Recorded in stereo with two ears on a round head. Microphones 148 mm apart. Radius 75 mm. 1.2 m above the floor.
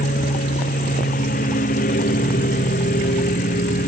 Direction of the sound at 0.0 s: 50° left (ahead or behind).